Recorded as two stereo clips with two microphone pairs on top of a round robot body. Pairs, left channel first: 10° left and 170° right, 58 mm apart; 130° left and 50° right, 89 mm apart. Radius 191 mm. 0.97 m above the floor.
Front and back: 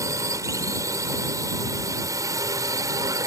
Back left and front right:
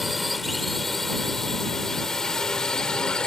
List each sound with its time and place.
0.0 s a drone: 140° right; by 3.3 s 150° right